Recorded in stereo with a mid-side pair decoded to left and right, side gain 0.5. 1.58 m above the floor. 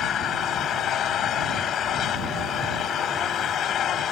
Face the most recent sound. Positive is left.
turn(degrees=60)